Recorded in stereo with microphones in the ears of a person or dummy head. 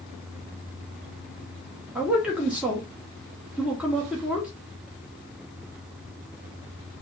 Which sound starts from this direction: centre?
A man speaking, at 1.9 s.